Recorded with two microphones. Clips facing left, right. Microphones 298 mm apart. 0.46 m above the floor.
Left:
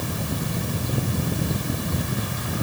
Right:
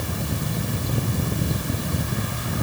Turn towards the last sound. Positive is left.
No sound to turn to.